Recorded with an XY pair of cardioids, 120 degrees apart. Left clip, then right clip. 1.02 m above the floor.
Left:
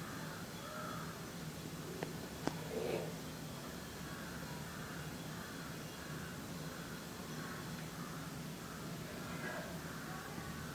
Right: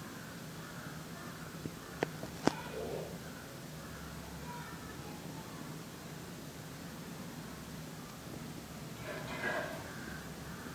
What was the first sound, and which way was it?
A squeak, 65° left.